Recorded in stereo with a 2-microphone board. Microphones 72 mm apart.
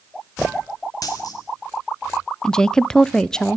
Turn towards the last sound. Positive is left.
turn(degrees=10)  # may be behind; listen again after turning